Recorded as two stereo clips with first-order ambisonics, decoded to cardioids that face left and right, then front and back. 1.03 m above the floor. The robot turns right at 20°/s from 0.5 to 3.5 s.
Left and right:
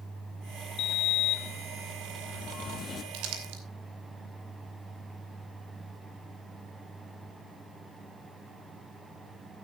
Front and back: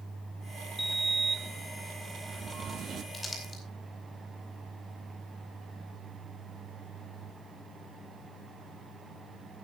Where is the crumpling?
80° right, 2.5 m; by 3.6 s 75° right, 2.5 m.